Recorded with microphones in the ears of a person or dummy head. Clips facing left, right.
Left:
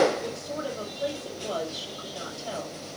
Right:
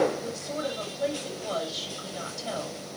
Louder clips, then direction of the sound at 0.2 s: Even; 30° right (ahead or behind).